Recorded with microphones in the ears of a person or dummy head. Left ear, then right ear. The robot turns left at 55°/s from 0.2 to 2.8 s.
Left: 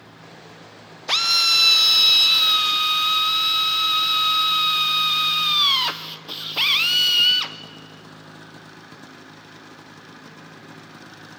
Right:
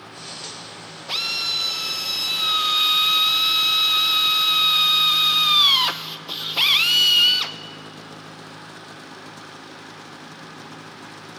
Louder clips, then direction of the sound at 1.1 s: Left 6 dB; 100° left.